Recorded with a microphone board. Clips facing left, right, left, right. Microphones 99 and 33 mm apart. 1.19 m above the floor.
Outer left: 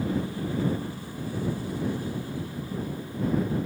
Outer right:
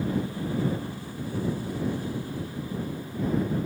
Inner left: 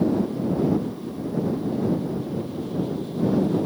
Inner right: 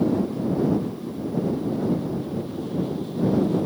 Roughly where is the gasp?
I don't hear a gasp.